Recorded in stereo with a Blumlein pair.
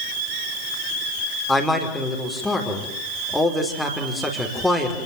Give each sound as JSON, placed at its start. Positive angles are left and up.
{"t": 1.5, "sound": "a man speaking", "azimuth_deg": 0, "distance_m": 5.0}